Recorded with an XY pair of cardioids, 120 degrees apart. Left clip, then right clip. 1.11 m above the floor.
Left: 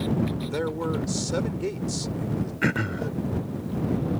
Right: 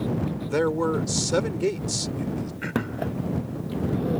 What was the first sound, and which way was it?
A man speaking, 30° right.